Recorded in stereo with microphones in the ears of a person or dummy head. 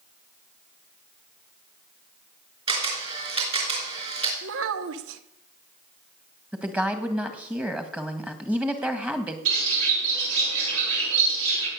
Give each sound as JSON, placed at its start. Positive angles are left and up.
{"t": 2.7, "sound": "a camera shutter", "side_deg": -30, "distance_m": 4.0}
{"t": 4.4, "sound": "a child speaking", "side_deg": -80, "distance_m": 1.1}
{"t": 6.5, "sound": "a woman speaking", "side_deg": -5, "distance_m": 1.5}
{"t": 9.4, "sound": "a bird", "side_deg": -85, "distance_m": 8.0}